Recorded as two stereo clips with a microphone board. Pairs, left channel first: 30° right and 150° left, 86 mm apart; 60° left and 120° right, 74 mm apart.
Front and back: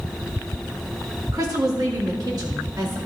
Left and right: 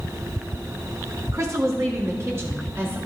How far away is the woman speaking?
About 1.3 m.